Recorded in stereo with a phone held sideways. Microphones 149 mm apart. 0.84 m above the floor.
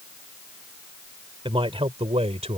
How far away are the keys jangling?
No keys jangling in this recording.